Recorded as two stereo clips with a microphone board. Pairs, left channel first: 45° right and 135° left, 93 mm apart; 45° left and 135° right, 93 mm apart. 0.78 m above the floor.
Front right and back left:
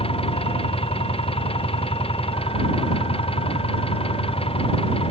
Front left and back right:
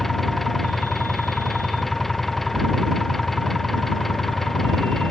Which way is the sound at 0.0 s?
45° right.